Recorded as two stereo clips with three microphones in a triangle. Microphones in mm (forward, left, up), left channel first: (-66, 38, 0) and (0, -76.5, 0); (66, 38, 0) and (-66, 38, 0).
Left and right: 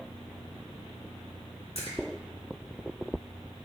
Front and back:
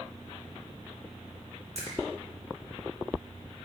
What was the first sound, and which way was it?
A splash, 150° left.